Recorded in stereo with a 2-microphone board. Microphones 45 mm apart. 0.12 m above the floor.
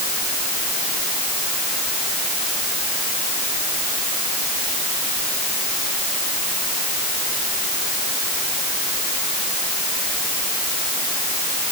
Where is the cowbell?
I don't hear a cowbell.